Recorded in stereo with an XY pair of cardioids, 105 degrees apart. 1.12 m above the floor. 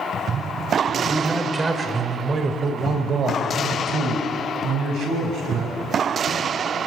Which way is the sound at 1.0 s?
10° right.